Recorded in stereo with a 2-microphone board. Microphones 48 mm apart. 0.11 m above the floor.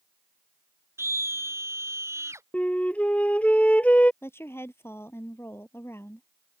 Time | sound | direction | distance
1.0 | a scream | 65° right (ahead or behind) | ?
2.5 | a flute | 30° left (ahead or behind) | ?
4.2 | a woman speaking | 55° left (ahead or behind) | ?